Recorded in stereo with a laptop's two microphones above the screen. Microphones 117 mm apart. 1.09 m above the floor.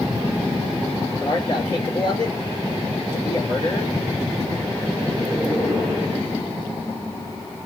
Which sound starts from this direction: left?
A man speaking, at 1.2 s.